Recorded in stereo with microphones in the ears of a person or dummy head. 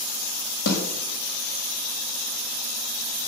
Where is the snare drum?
60° left (ahead or behind), 5 m.